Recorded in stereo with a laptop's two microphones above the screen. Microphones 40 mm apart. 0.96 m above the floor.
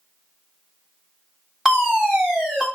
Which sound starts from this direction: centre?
A fire alarm, at 1.6 s.